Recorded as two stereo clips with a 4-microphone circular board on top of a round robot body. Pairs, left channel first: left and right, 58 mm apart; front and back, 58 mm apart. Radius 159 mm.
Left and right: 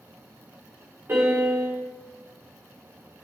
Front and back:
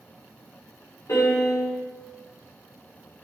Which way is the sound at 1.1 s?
35° right.